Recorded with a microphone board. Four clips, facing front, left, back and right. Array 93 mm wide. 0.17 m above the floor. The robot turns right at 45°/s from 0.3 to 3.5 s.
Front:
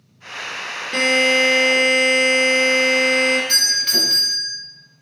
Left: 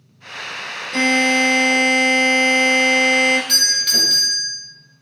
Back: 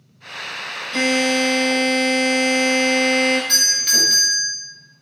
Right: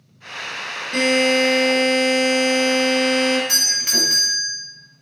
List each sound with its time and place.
0.9 s a buzzer: 20° right, 1.3 m; by 3.4 s 90° left, 1.3 m
3.5 s a doorbell: 80° right, 1.5 m